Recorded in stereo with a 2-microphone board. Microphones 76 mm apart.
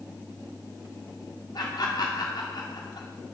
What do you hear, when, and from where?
1.6 s laughter: 70° left (ahead or behind), 1.9 m